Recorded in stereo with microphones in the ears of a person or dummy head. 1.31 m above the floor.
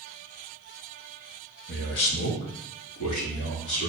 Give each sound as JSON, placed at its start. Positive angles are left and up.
{"t": 1.7, "sound": "a man speaking", "side_deg": 55, "distance_m": 1.0}